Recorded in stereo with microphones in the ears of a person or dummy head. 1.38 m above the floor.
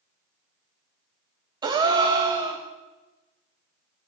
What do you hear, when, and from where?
1.6 s a gasp: 25° right (ahead or behind), 1.0 m